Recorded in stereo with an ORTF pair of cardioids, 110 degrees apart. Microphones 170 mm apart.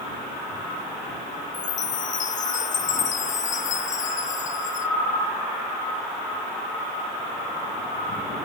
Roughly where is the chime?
Ahead left.